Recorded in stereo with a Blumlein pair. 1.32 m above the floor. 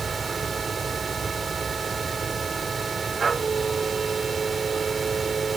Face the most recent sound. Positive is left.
turn(degrees=-15)